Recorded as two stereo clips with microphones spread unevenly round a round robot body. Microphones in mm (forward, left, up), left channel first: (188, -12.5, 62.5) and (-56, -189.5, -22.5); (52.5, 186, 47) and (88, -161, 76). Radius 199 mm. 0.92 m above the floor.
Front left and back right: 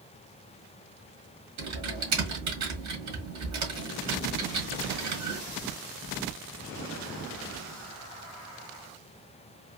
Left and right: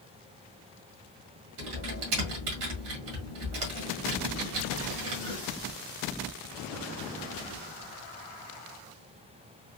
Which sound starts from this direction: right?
Typing on a keyboard, at 1.6 s.